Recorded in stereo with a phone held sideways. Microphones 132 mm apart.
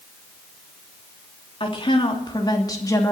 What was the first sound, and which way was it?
A woman speaking, 40° left (ahead or behind).